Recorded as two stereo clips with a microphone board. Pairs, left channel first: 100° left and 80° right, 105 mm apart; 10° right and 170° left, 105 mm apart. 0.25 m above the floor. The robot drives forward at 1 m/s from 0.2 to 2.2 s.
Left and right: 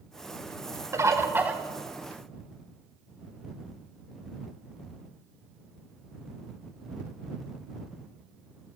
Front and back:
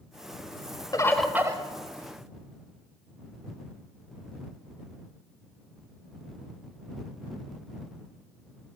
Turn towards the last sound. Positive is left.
turn(degrees=-170)